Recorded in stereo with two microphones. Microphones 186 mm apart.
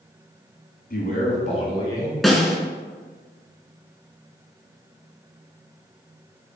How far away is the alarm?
I don't hear an alarm.